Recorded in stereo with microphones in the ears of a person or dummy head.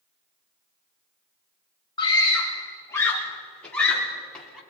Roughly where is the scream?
Centre.